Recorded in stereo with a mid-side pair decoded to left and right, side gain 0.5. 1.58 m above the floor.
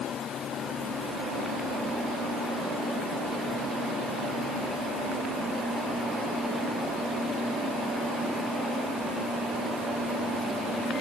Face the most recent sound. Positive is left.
No sound to turn to.